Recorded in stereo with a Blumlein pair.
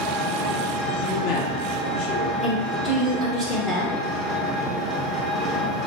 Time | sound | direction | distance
0.0 | an engine running | 15° left | 1.0 m
1.0 | a man speaking | 45° left | 1.2 m
2.4 | a woman speaking | 15° left | 1.0 m